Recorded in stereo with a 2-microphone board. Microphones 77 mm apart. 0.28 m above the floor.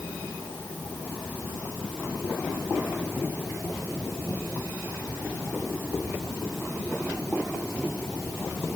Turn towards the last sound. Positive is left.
No sound to turn to.